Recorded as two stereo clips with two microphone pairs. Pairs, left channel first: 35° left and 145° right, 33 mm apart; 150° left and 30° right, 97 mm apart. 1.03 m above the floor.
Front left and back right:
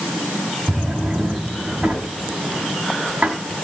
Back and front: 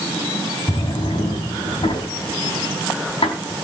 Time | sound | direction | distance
0.7 | a drawer | 170° left | 4.5 m